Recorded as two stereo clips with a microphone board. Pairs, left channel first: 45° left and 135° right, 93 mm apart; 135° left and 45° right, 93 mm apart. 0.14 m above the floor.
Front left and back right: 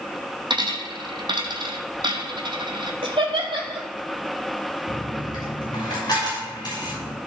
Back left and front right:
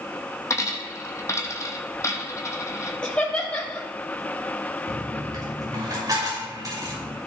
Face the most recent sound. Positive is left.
turn(degrees=0)